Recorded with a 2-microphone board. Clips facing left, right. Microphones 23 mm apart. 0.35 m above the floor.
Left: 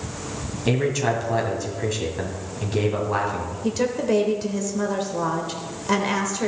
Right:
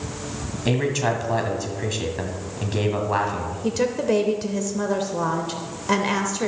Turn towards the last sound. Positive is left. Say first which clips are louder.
# right 1 dB
turn(degrees=-10)  # may be behind; listen again after turning